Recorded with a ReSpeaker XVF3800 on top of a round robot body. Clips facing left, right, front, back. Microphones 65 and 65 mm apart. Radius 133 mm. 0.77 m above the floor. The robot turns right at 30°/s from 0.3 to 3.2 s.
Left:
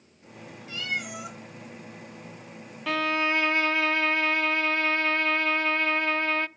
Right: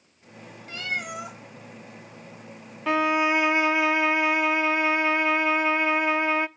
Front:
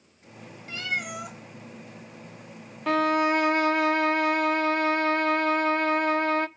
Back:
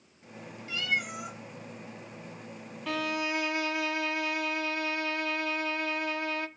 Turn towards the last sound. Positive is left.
turn(degrees=-20)